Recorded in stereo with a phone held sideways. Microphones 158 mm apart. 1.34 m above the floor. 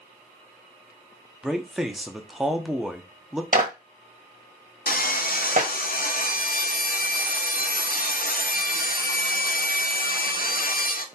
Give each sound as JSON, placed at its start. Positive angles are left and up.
{"t": 1.4, "sound": "a man speaking", "side_deg": -5, "distance_m": 0.9}
{"t": 3.5, "sound": "a clap", "side_deg": -60, "distance_m": 1.2}
{"t": 4.9, "sound": "sawing", "side_deg": 70, "distance_m": 0.5}